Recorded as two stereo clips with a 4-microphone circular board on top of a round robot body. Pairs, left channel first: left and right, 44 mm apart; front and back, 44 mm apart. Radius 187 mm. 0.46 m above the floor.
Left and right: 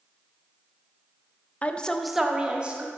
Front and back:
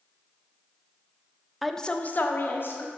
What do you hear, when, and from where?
1.6 s a woman speaking: 95° left, 0.8 m; by 2.9 s 30° right, 1.6 m